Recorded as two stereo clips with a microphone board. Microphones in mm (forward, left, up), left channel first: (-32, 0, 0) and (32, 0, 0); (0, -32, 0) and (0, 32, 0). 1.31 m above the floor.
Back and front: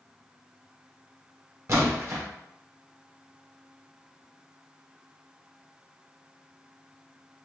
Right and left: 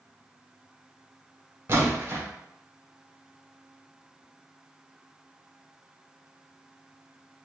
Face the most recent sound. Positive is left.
turn(degrees=40)